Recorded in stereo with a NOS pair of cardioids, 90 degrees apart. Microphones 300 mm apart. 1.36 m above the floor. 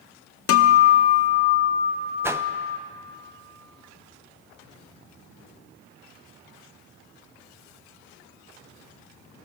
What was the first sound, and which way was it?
A guitar, 50° left.